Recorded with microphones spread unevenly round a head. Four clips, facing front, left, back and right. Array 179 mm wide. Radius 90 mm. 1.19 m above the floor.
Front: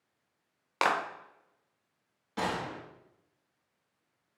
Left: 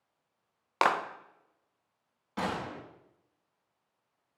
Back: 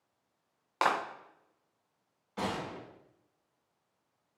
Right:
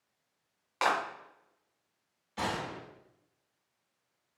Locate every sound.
0.8 s a clap: 65° left, 0.6 m
2.4 s a gunshot: 50° left, 2.0 m